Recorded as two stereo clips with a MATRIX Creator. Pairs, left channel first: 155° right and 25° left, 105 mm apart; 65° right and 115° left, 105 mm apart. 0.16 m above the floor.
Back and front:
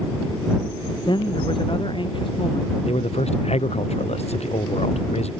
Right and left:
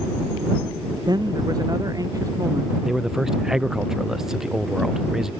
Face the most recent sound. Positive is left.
turn(degrees=-160)